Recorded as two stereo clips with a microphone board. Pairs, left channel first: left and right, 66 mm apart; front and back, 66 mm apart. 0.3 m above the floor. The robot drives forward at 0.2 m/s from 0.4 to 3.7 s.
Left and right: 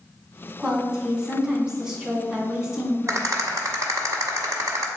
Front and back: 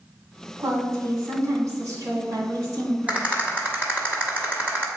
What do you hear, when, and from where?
0.6 s a woman speaking: 165° right, 1.8 m; by 3.2 s 170° right, 2 m
3.1 s a rattle: 115° right, 1.2 m; by 4.9 s 120° right, 1.2 m